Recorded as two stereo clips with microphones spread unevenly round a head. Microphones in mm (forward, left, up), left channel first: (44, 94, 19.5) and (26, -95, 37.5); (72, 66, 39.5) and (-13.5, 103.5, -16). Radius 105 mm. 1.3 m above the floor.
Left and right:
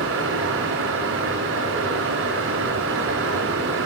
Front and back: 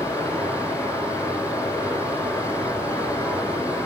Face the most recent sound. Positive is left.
turn(degrees=-90)